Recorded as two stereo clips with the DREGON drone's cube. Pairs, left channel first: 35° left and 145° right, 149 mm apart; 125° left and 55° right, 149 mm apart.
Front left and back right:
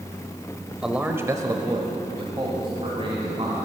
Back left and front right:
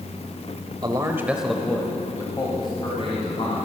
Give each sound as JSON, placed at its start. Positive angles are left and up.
{"t": 0.8, "sound": "a man speaking", "azimuth_deg": -65, "distance_m": 1.0}